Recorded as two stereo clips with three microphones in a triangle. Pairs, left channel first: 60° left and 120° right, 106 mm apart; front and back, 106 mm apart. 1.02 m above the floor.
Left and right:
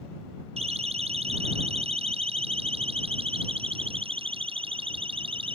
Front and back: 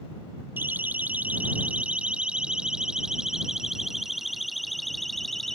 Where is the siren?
110° right; by 5.6 s 85° right.